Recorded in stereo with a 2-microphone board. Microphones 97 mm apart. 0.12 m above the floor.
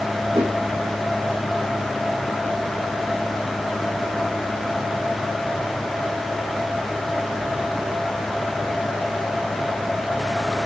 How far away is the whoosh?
About 4 m.